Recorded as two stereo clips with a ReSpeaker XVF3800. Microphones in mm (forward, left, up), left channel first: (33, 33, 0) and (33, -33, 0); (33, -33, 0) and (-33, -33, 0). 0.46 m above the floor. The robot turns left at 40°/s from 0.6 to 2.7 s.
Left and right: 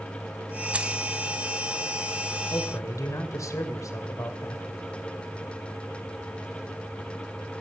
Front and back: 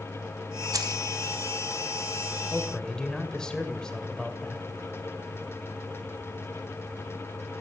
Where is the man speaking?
85° left, 2.5 m; by 4.7 s 75° left, 2.5 m.